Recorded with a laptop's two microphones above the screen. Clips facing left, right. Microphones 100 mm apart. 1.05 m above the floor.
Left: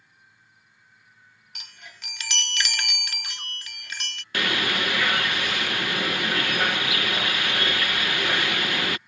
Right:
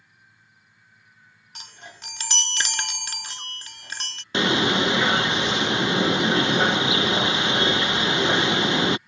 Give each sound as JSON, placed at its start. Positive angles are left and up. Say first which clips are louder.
{"t": 1.6, "sound": "a chime", "louder": "right 4 dB", "side_deg": -35}
{"t": 4.3, "sound": "a bird", "louder": "right 6 dB", "side_deg": -25}